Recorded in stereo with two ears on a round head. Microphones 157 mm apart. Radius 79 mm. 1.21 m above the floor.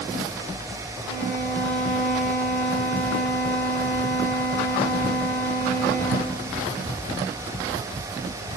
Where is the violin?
75° right (ahead or behind), 2.5 m.